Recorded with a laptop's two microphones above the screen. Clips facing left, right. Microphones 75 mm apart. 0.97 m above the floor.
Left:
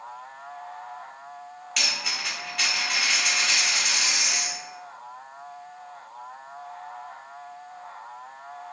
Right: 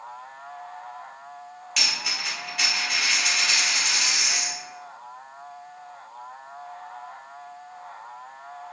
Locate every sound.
1.8 s a dropped coin: centre (ahead or behind), 1.2 m